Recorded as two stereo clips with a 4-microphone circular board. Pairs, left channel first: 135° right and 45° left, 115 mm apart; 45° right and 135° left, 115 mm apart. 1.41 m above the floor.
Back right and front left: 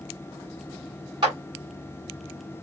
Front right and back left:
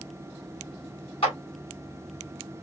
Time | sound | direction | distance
1.2 | a clap | 5° right | 3.5 m